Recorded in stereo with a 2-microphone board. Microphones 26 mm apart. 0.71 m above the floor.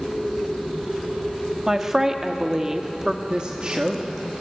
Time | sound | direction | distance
1.7 | a woman speaking | 20° right (ahead or behind) | 1.4 m
3.3 | a woman speaking | 40° right (ahead or behind) | 1.3 m